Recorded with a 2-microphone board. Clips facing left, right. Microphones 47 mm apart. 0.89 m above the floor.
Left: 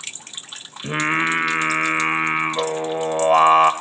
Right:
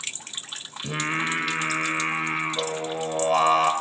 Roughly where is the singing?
Left.